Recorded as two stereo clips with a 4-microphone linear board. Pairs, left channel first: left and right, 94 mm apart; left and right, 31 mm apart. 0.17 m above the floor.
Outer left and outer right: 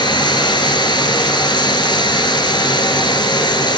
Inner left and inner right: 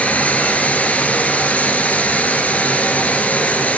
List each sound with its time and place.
0.0 s running water: 55° left (ahead or behind), 1.0 m